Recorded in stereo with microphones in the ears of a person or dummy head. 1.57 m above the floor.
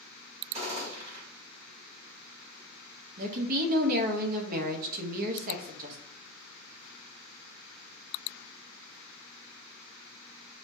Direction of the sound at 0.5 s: 30° right (ahead or behind).